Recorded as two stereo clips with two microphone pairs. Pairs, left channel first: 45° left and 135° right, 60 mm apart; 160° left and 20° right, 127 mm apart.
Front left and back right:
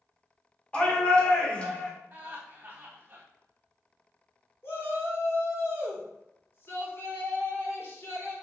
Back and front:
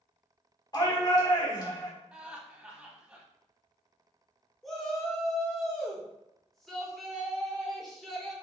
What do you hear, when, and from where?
0.7 s a shout: 110° left, 1.4 m
2.1 s laughter: 100° right, 1.0 m
4.6 s a shout: 70° left, 1.4 m